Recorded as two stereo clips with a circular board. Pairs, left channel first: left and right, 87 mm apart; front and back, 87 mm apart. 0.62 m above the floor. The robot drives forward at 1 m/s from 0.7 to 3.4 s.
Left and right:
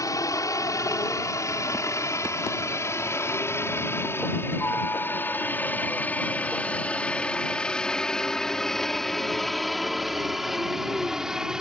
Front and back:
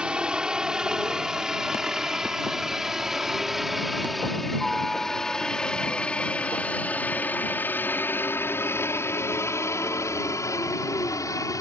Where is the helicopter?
105° left; by 11.6 s 10° right.